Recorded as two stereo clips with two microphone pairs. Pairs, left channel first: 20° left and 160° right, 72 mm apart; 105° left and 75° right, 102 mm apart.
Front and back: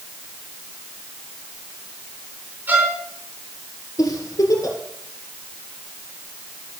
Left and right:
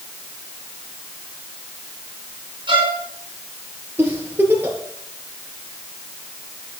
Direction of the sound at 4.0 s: 5° right.